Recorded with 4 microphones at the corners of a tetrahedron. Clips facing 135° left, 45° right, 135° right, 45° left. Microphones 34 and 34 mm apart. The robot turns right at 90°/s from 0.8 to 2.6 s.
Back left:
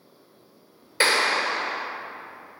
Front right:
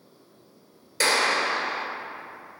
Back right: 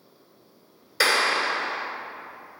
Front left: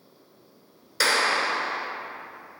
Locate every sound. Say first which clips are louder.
1.0 s a clap: back left 1 dB, back right 1 dB; 155° left, 1.0 m; by 1.9 s 125° right, 1.0 m